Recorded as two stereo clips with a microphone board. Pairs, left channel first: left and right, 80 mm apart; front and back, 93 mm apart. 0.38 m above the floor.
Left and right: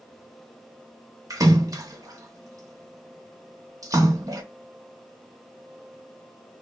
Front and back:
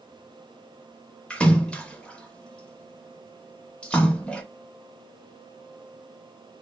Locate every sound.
1.3 s a splash: 75° right, 0.6 m